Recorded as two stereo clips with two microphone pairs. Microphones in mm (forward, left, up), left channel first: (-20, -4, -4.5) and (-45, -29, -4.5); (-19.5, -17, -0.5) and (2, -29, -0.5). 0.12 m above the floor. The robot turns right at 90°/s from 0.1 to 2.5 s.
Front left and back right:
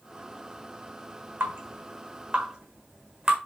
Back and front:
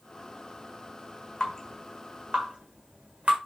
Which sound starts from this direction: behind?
Dripping, at 1.4 s.